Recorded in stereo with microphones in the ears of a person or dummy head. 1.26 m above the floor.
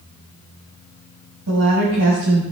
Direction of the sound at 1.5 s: 90° right.